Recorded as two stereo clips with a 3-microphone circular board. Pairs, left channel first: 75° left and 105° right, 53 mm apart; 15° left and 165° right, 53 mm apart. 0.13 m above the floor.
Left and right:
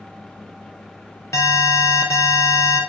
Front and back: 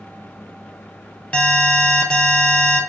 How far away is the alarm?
About 3 m.